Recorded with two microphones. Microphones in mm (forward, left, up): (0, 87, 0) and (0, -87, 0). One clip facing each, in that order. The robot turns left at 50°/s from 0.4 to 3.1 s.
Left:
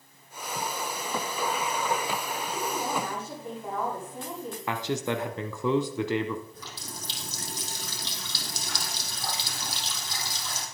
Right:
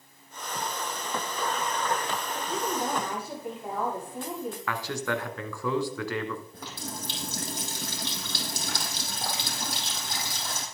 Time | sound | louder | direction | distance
2.3 | a woman speaking | right 1 dB | 130° right | 8 m
4.7 | a man speaking | left 4 dB | 20° left (ahead or behind) | 1.5 m
6.5 | a running tap | right 4 dB | 60° right (ahead or behind) | 3.5 m